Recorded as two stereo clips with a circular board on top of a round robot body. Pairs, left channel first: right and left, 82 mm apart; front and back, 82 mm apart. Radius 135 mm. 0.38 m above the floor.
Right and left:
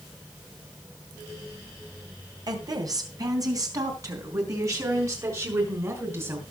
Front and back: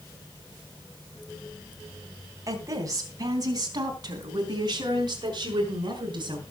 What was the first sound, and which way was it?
A woman speaking, 130° left.